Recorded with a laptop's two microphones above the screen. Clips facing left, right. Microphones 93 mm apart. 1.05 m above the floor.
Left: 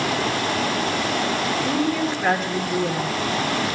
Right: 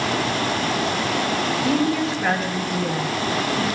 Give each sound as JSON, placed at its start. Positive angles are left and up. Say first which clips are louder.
{"t": 1.6, "sound": "a woman speaking", "louder": "right 3 dB", "side_deg": 0, "distance_m": 1.5}